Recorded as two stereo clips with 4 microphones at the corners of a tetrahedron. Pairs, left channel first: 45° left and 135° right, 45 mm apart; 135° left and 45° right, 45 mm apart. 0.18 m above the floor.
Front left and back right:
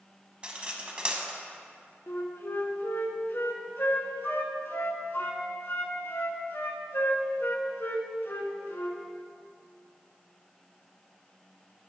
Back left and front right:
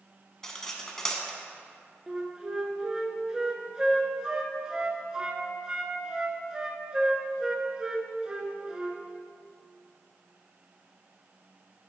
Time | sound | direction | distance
0.4 | cutlery clinking | 160° right | 0.7 m
2.1 | a flute | 25° left | 0.6 m